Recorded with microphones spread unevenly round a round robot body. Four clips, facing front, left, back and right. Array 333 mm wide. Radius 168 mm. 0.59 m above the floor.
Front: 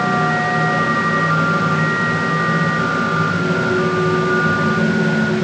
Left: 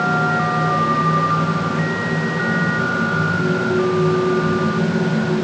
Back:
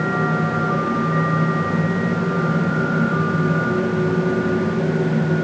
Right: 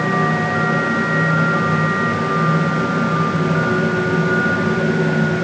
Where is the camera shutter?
No camera shutter in this recording.